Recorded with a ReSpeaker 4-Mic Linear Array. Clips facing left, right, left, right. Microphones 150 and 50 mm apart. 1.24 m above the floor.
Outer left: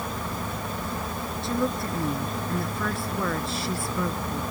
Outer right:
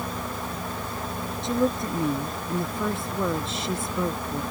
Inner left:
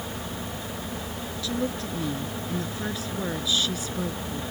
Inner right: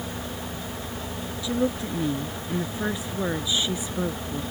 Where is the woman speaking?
20° right (ahead or behind).